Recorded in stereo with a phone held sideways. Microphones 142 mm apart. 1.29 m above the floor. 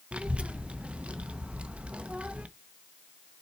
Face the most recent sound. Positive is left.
turn(degrees=-10)  # may be behind; listen again after turning